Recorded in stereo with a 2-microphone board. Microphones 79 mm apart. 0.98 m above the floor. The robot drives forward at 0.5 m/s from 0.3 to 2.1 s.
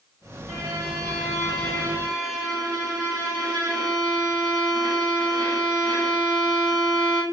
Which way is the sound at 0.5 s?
55° right (ahead or behind).